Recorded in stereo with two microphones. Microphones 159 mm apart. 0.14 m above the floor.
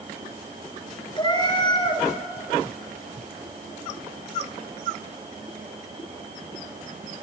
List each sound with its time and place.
1.2 s a cat meowing: 30° left (ahead or behind), 1.2 m